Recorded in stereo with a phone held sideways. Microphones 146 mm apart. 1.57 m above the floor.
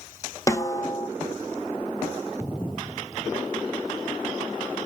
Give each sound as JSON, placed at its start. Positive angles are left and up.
{"t": 0.5, "sound": "a snare drum", "side_deg": 20, "distance_m": 0.6}